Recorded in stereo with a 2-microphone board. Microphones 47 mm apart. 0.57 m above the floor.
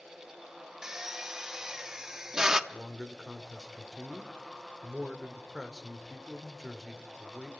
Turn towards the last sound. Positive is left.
turn(degrees=-10)  # may be behind; listen again after turning